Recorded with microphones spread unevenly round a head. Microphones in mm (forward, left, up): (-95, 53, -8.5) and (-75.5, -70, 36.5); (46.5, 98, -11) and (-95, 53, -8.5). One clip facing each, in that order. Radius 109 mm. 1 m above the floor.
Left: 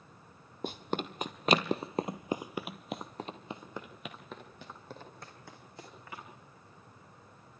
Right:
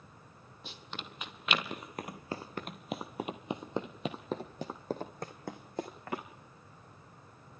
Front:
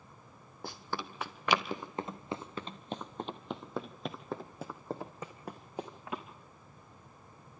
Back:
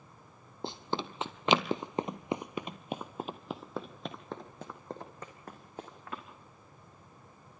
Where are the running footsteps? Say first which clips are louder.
Left 12 dB, back 4 dB; 140° left, 1.6 m; by 6.2 s 60° right, 2.5 m.